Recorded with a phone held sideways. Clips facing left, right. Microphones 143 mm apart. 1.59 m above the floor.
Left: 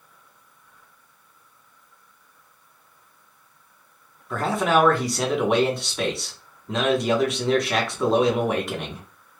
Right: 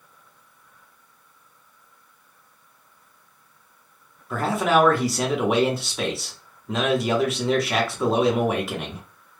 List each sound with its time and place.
4.3 s a man speaking: centre (ahead or behind), 0.7 m